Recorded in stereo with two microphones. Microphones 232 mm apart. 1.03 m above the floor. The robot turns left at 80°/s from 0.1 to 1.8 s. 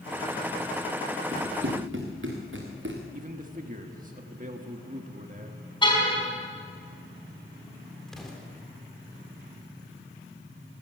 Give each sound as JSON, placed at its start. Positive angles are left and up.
{"t": 1.3, "sound": "running footsteps", "side_deg": -40, "distance_m": 5.0}
{"t": 3.1, "sound": "a man speaking", "side_deg": -40, "distance_m": 1.5}
{"t": 5.8, "sound": "a car horn", "side_deg": 20, "distance_m": 4.5}
{"t": 8.1, "sound": "an explosion", "side_deg": 0, "distance_m": 3.5}